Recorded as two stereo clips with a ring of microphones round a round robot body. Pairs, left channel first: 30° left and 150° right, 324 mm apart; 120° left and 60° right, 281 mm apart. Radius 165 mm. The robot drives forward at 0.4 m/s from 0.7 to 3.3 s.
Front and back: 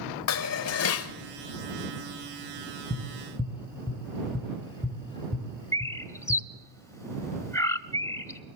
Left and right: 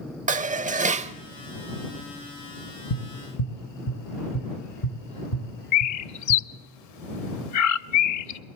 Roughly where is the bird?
Left.